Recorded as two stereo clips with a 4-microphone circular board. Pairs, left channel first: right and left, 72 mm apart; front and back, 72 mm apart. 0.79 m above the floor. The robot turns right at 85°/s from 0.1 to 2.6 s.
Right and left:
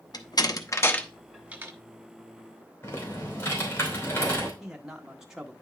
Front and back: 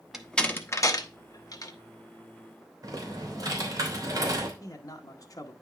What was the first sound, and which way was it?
A door slam, 95° right.